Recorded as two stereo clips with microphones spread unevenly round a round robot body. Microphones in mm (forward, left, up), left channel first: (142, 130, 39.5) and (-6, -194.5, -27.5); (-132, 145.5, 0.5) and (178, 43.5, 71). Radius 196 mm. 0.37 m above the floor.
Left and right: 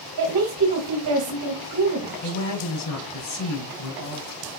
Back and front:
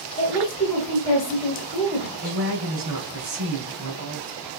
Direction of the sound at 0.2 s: 135° right.